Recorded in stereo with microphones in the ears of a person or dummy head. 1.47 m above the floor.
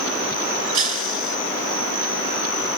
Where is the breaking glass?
40° right (ahead or behind).